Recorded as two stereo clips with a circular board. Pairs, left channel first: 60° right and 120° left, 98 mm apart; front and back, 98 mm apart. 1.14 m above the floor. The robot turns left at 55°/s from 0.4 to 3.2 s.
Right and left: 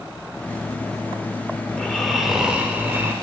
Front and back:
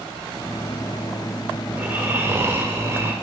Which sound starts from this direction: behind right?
Snoring, at 1.7 s.